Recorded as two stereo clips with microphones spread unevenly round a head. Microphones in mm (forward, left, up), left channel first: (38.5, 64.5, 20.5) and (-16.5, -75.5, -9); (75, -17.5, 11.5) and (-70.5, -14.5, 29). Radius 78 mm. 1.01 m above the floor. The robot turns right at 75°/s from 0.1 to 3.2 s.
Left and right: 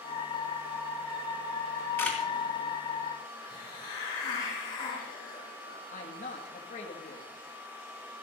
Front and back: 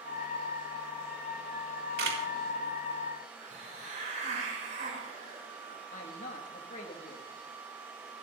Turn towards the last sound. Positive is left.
turn(degrees=30)